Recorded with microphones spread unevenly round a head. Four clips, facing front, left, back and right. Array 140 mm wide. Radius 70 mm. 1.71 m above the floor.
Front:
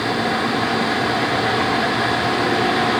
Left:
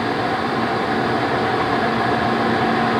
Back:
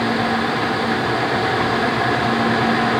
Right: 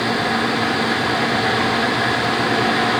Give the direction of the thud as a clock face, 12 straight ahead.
I don't hear a thud.